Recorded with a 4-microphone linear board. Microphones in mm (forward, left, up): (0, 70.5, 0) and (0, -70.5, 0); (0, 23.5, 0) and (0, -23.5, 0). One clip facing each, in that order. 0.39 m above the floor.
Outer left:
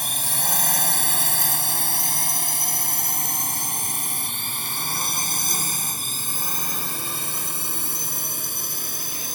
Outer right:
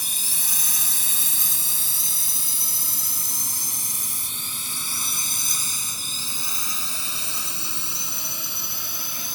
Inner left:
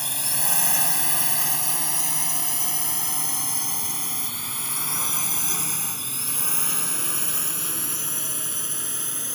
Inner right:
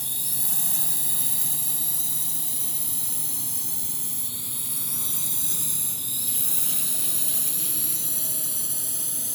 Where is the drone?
65° left (ahead or behind); by 9.3 s 50° left (ahead or behind).